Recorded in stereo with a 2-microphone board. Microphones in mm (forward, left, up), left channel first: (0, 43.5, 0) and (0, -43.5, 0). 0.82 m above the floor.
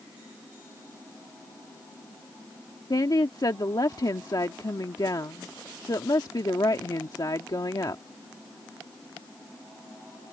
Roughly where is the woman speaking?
Left.